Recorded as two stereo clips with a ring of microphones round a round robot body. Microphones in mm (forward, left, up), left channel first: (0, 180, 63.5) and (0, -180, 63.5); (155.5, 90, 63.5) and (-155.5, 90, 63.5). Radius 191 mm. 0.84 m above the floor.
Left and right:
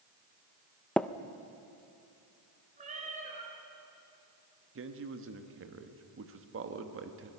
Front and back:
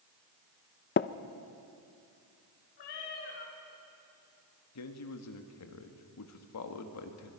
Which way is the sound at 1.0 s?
5° left.